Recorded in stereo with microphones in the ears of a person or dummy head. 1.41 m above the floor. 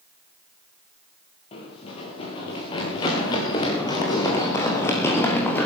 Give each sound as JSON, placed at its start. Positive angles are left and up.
{"t": 1.5, "sound": "running footsteps", "side_deg": 30, "distance_m": 6.5}